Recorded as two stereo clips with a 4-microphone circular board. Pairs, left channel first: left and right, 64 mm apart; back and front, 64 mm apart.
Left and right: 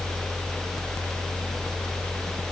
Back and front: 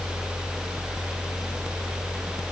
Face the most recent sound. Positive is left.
No sound to turn to.